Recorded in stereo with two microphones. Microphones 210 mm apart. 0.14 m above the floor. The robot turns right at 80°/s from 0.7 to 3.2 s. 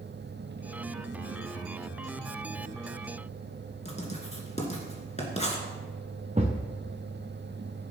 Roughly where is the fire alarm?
I don't hear a fire alarm.